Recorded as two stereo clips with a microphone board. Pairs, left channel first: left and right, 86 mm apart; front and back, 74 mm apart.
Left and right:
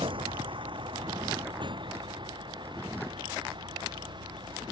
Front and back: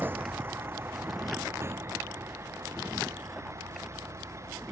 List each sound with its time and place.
0.0 s a vehicle: 115° right; by 4.7 s 125° right